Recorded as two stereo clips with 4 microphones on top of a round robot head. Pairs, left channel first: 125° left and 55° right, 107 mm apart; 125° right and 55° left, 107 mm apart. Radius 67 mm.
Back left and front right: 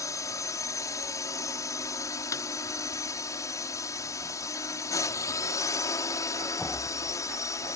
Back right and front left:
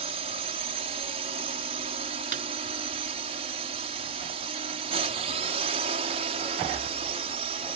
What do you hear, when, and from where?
0.0 s a drone: 70° left
2.3 s a snare drum: 65° left